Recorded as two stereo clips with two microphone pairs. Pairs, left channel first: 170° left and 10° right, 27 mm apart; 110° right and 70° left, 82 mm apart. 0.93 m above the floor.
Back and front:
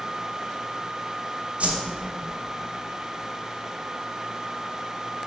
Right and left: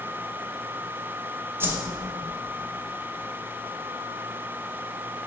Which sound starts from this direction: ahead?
A whoosh, at 1.6 s.